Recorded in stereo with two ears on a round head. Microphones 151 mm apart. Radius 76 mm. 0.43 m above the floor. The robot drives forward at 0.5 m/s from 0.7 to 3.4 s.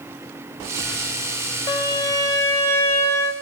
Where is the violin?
25° left (ahead or behind), 1.2 m; by 3.3 s 15° left (ahead or behind), 2.0 m.